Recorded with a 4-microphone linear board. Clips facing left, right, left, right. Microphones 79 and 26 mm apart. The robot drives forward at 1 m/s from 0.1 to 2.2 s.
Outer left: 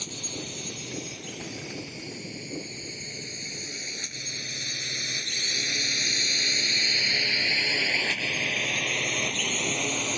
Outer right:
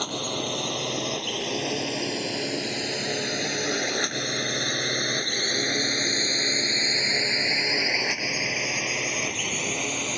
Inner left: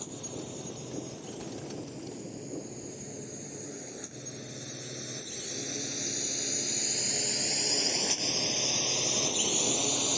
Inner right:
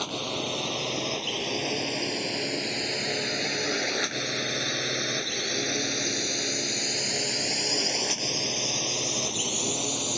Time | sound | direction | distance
0.0 | a drone | 60° right (ahead or behind) | ?